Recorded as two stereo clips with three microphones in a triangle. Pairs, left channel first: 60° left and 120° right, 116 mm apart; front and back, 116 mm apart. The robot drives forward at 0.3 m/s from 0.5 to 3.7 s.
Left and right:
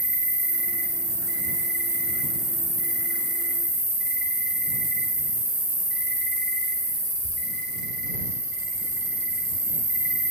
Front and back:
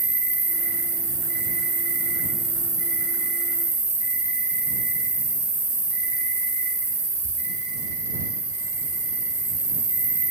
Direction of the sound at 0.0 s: 130° left.